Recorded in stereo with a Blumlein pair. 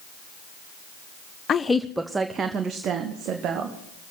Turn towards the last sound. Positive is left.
turn(degrees=-35)